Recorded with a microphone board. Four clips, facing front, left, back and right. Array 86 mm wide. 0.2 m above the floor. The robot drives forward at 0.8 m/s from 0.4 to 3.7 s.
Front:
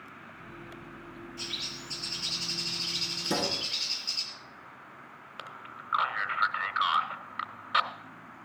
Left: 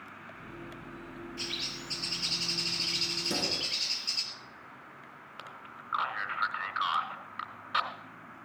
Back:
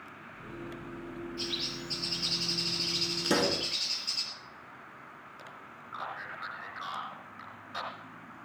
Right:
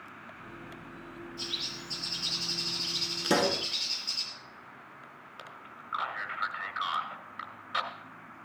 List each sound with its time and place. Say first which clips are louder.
1.4 s a bird: left 1 dB, back 4 dB; 75° left, 5 m; by 4.2 s 100° left, 5 m
3.2 s a pop: right 10 dB, back 3 dB; 115° right, 0.7 m; by 3.7 s 135° right, 0.9 m
5.4 s a man speaking: left 1 dB, front 4 dB; 20° left, 1.8 m